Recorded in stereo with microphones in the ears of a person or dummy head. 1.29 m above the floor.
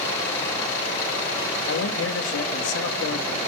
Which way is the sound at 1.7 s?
85° left.